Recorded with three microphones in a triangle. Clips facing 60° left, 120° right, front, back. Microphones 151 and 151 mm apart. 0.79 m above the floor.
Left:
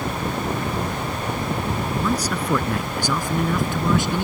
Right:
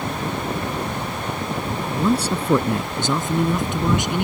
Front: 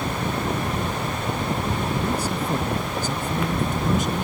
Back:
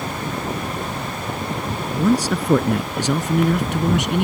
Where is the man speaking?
Straight behind; by 4.2 s 165° left.